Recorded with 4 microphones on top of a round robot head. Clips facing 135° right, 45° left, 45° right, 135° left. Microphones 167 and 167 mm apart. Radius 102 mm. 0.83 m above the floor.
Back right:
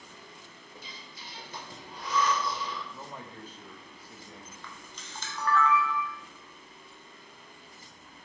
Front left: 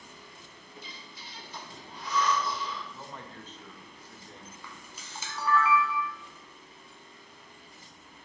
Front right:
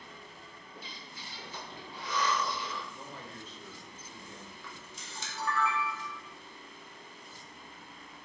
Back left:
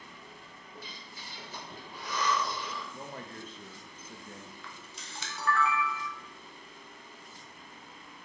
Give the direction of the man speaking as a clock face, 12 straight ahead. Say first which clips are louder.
Back right 1 dB, back left 3 dB; 7 o'clock.